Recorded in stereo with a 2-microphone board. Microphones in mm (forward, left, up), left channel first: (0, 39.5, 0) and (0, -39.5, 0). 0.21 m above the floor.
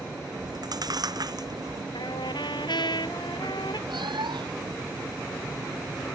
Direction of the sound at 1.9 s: 75° left (ahead or behind).